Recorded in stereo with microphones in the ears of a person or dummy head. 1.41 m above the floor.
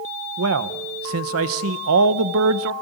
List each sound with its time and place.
0.4 s a man speaking: 75° right (ahead or behind), 1.1 m